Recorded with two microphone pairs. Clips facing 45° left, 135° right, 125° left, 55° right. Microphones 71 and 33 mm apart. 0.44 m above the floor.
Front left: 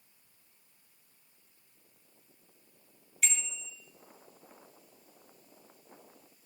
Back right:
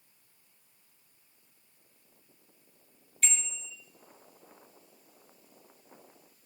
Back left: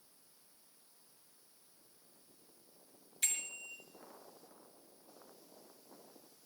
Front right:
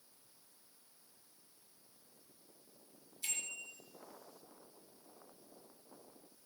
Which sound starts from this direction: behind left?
A bicycle bell, at 3.2 s.